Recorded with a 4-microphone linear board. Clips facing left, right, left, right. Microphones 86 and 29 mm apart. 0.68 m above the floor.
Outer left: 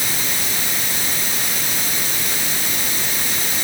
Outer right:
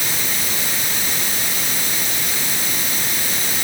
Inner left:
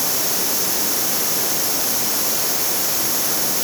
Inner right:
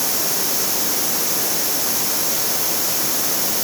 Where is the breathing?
No breathing in this recording.